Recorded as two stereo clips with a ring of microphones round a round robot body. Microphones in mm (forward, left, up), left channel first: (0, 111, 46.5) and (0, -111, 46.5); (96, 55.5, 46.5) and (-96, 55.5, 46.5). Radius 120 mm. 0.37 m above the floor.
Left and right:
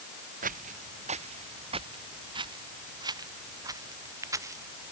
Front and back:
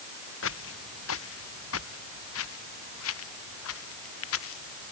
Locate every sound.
0.4 s footsteps: 35° right; by 4.9 s 10° right